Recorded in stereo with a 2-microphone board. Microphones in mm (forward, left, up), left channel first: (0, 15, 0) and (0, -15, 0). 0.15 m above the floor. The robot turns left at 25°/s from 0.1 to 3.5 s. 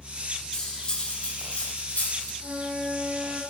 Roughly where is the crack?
No crack in this recording.